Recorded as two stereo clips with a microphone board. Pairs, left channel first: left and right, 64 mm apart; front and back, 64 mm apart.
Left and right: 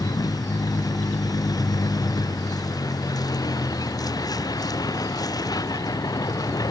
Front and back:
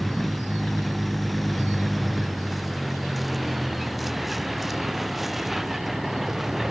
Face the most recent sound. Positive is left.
turn(degrees=95)